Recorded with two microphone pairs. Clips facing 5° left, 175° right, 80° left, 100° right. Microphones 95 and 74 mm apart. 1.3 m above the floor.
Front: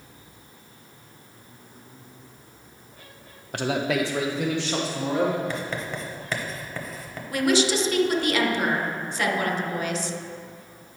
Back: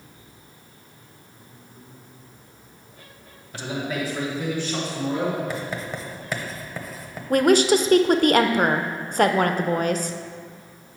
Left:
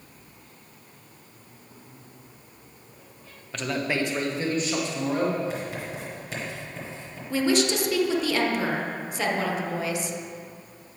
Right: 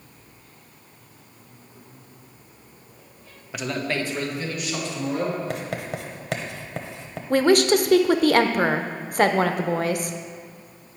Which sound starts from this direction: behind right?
A woman speaking, at 7.3 s.